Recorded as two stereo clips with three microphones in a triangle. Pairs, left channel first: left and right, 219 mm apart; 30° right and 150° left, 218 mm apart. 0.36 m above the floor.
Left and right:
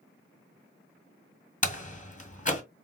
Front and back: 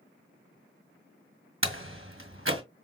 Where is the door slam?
140° left, 1.8 m.